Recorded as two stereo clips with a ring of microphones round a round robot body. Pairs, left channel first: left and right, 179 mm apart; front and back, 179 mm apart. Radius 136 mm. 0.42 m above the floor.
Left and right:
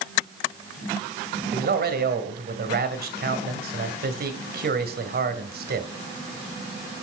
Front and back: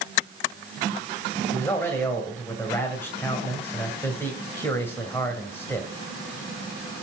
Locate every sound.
1.5 s a man speaking: 80° right, 2.5 m